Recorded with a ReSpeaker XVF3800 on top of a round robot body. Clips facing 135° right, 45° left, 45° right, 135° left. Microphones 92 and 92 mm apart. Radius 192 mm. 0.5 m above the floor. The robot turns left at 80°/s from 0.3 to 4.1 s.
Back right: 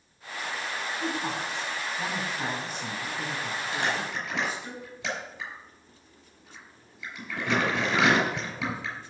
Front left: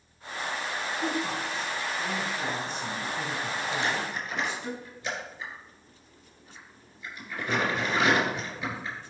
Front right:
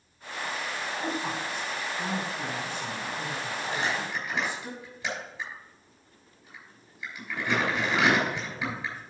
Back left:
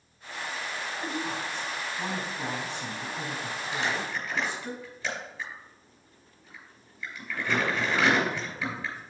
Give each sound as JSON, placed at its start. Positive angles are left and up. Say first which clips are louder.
{"t": 1.0, "sound": "a woman speaking", "louder": "front left 1 dB, front right 1 dB", "azimuth_deg": -90, "distance_m": 4.5}
{"t": 3.7, "sound": "crumpling", "louder": "back right 2 dB, back left 1 dB", "azimuth_deg": -85, "distance_m": 6.0}